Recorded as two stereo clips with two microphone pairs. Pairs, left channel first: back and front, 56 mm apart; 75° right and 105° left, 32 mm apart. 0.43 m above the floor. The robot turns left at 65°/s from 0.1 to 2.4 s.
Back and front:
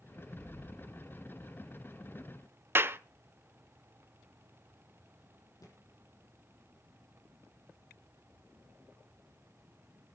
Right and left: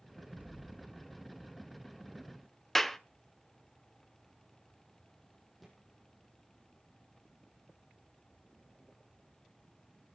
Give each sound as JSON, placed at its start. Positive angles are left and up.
{"t": 0.3, "sound": "an explosion", "azimuth_deg": 105, "distance_m": 3.5}
{"t": 2.8, "sound": "a clap", "azimuth_deg": 5, "distance_m": 0.7}
{"t": 5.6, "sound": "a thud", "azimuth_deg": -165, "distance_m": 5.5}